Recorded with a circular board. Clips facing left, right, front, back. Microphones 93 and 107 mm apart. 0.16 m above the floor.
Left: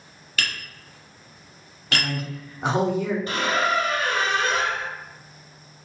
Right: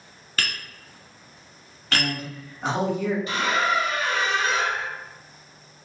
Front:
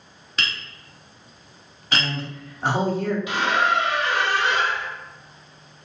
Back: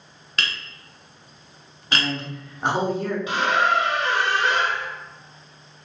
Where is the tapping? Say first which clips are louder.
Even, even; 95° right, 1.5 m.